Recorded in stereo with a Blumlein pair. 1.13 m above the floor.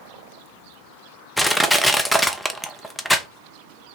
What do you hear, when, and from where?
1.4 s crushing: 5° left, 0.6 m